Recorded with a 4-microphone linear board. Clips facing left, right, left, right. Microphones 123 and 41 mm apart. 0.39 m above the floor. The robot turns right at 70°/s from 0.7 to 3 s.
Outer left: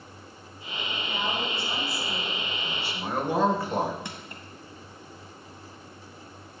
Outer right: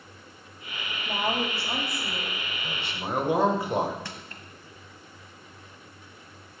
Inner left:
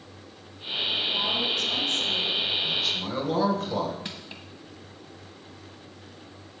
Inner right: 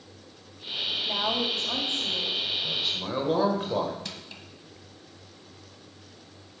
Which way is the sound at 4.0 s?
20° left (ahead or behind).